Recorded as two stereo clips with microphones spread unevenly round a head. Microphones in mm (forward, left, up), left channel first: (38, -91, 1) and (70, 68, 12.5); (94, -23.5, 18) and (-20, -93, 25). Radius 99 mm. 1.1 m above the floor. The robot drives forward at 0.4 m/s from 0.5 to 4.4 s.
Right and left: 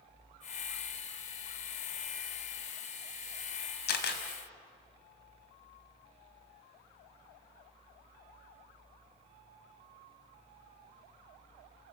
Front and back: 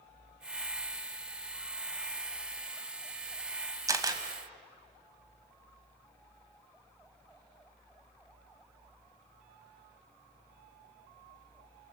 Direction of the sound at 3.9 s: 85° right.